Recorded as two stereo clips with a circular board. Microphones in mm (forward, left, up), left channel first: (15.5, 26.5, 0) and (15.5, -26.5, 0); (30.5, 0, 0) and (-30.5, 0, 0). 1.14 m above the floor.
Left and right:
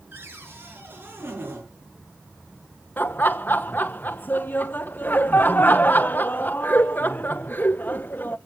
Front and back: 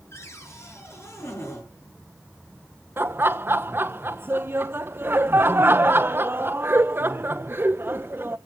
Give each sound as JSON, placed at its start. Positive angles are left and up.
{"t": 0.1, "sound": "a cupboard door", "azimuth_deg": -40, "distance_m": 5.5}
{"t": 3.0, "sound": "laughter", "azimuth_deg": 135, "distance_m": 0.8}